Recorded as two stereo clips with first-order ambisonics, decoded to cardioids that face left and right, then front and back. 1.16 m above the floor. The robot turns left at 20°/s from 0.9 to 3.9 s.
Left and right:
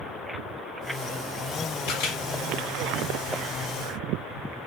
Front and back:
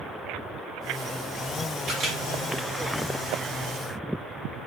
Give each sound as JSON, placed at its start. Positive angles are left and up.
{"t": 1.9, "sound": "a camera shutter", "azimuth_deg": 115, "distance_m": 1.2}